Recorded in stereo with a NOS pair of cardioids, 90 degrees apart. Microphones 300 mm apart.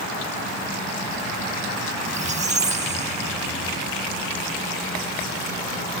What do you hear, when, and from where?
2.0 s a squeak: 25° right